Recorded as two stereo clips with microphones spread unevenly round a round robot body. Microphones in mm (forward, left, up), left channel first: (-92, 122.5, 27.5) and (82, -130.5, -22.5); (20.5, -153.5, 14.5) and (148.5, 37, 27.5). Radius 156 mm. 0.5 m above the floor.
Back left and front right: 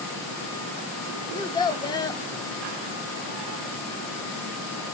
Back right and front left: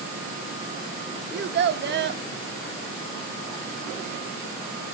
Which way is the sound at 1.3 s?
45° left.